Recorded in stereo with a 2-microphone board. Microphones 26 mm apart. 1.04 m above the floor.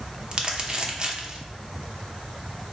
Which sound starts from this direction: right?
Crumpling, at 0.3 s.